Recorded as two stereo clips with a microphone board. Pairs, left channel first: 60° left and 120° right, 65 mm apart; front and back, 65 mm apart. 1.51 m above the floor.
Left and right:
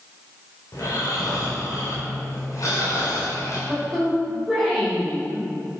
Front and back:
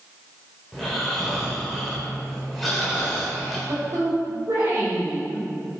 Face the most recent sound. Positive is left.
turn(degrees=135)